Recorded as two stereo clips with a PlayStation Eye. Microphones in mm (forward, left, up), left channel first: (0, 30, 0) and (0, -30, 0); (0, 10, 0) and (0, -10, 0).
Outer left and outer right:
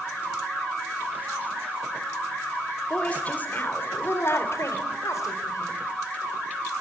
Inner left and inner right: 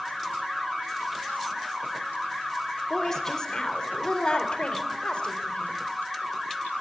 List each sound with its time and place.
2.9 s a woman speaking: 20° left (ahead or behind), 3.5 m; by 5.8 s 70° left (ahead or behind), 4.5 m